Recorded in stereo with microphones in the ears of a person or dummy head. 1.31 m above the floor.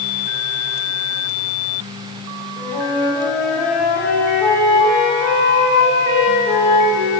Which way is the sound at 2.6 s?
15° left (ahead or behind).